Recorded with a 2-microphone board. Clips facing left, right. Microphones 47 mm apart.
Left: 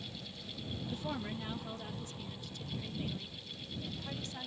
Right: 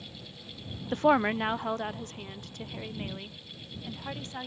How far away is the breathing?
I don't hear breathing.